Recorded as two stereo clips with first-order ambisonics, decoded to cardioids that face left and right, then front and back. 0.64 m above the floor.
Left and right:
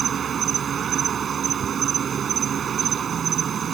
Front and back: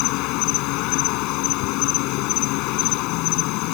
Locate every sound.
0.0 s an insect: 25° right